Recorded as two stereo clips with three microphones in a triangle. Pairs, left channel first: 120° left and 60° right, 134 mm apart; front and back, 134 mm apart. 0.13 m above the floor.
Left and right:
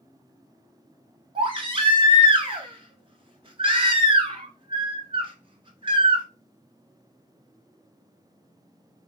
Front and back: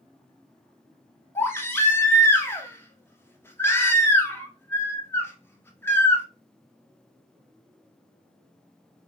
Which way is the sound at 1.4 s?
65° right.